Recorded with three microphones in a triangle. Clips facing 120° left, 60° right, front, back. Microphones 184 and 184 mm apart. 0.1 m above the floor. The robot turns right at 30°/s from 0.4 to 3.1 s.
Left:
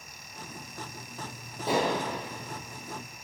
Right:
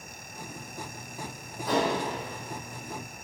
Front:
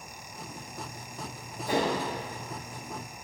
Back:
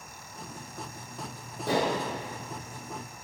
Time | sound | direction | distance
1.7 | dishes clattering | straight behind | 2.5 m